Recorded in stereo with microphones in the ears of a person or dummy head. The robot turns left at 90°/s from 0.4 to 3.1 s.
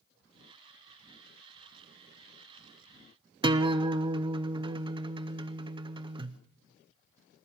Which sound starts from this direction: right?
A guitar, at 3.4 s.